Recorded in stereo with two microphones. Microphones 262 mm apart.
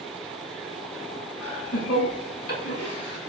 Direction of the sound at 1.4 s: 70° left (ahead or behind).